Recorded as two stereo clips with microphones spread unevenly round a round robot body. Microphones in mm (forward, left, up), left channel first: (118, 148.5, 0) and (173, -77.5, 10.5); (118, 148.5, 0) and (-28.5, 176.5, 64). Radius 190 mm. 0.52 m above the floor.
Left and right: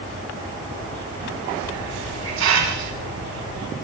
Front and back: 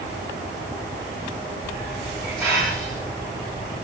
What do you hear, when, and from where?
1.6 s a hiss: 95° right, 4 m